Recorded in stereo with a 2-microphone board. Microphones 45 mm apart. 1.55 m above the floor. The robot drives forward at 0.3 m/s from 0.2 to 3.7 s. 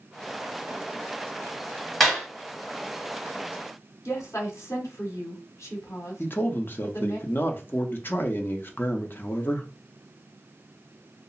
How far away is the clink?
No clink in this recording.